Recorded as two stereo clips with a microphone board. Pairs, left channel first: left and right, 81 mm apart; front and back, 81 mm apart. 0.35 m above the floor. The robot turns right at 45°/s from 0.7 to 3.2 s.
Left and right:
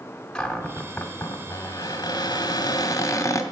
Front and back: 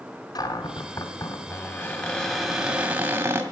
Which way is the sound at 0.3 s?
10° left.